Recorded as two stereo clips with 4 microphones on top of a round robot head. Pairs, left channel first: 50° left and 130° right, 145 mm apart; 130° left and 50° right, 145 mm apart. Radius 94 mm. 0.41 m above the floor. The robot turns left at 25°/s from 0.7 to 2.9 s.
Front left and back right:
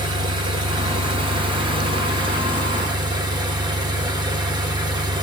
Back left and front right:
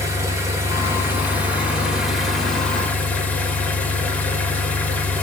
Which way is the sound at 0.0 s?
105° right.